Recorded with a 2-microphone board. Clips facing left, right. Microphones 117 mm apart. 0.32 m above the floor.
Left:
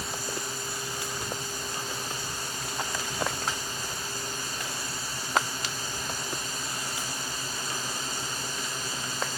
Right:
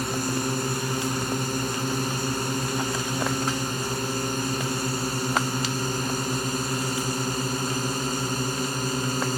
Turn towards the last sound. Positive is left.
turn(degrees=-50)  # may be behind; listen again after turning